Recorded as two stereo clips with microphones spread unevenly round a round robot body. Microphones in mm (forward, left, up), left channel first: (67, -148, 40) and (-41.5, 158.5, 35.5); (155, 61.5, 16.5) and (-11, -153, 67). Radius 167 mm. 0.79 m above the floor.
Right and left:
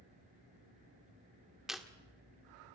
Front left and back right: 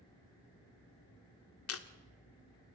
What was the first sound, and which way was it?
Chewing, 20° left.